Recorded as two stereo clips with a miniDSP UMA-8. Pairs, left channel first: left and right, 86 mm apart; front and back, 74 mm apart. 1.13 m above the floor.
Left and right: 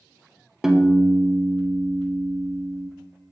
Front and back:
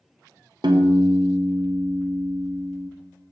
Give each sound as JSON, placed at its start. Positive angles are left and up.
{"t": 0.6, "sound": "a piano", "azimuth_deg": -175, "distance_m": 0.6}